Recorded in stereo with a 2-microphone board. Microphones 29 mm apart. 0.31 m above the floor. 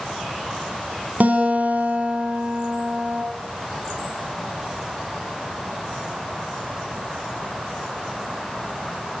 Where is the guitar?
60° right (ahead or behind), 3 m.